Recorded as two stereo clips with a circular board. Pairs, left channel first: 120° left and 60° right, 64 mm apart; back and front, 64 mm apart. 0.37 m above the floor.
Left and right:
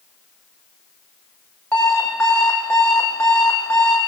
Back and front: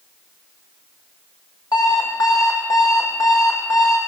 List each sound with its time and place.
1.7 s an alarm clock: 165° right, 7 m